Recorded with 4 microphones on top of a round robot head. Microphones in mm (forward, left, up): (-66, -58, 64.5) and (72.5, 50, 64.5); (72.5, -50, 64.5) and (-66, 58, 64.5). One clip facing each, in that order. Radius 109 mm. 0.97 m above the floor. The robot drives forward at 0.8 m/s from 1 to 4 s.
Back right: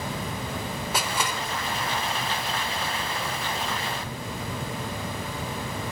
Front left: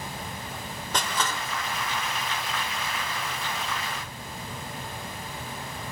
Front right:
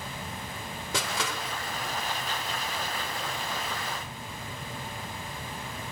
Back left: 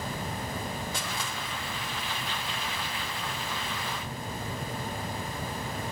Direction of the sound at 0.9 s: 60° right.